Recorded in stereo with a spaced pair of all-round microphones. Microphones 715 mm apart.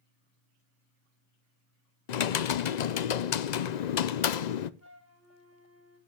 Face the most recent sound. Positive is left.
turn(degrees=25)  # may be behind; listen again after turning